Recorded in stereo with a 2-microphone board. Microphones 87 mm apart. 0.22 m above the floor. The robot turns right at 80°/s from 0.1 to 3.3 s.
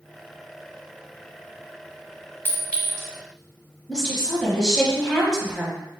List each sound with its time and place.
2.5 s a clink: 25° left (ahead or behind), 1.0 m; by 3.1 s 5° left (ahead or behind), 1.0 m
3.9 s a woman speaking: 10° left (ahead or behind), 1.2 m